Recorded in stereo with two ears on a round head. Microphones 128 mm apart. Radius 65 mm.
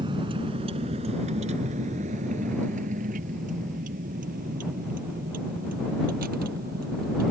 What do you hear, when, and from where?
0.0 s a vehicle: 30° right (ahead or behind); by 7.3 s 65° right (ahead or behind)